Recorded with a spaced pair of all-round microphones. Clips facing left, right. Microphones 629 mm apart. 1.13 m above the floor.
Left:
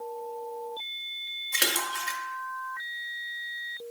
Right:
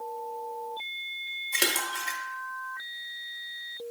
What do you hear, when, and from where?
1.5 s a splash: 40° left (ahead or behind), 0.8 m